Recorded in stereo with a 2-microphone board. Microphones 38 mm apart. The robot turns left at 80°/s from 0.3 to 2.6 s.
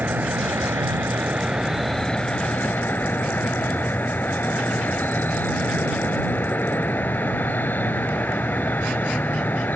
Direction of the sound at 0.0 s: 55° right.